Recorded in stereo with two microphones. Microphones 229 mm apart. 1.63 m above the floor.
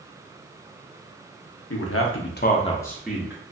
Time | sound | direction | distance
1.7 | a man speaking | 75° left (ahead or behind) | 0.8 m